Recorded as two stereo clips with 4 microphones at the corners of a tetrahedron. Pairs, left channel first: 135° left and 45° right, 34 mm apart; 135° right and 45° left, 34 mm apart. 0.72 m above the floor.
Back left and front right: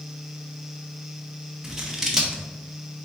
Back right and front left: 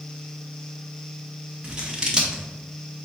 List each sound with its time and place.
1.6 s scissors: 10° left, 0.7 m